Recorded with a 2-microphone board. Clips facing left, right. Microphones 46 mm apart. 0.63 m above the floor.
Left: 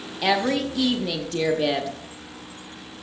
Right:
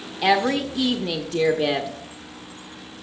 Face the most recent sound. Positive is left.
turn(degrees=-10)  # may be behind; listen again after turning